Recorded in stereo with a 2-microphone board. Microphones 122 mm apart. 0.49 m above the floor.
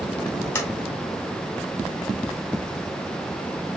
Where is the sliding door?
20° left (ahead or behind), 2.5 m.